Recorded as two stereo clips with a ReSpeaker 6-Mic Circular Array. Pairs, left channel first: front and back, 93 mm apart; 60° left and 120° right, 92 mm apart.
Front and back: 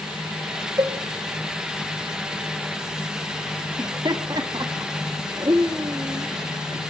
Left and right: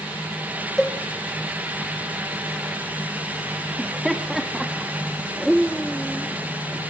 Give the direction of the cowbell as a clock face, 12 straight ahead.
7 o'clock.